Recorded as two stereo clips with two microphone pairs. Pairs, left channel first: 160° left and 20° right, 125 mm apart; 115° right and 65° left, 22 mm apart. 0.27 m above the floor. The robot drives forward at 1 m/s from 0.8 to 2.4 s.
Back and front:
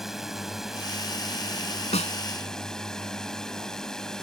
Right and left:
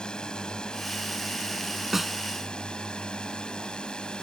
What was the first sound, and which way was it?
A drone, 105° right.